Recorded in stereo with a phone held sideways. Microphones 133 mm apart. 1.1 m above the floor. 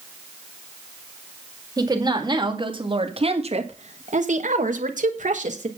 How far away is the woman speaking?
About 2 m.